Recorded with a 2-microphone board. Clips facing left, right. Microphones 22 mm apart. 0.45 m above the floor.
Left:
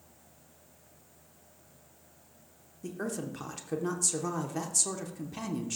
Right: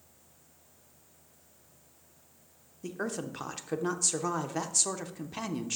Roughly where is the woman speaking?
Centre.